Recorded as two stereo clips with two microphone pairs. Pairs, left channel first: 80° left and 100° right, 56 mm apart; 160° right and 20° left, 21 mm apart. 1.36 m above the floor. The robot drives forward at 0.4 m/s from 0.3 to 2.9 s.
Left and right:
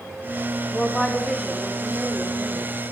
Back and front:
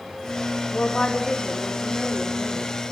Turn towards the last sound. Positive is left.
turn(degrees=170)